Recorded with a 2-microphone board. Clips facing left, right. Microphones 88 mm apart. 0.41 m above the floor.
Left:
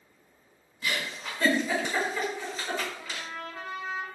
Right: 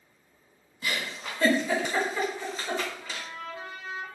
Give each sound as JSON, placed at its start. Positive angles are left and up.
{"t": 0.8, "sound": "a giggle", "side_deg": -5, "distance_m": 1.2}
{"t": 3.0, "sound": "a trumpet", "side_deg": 75, "distance_m": 0.6}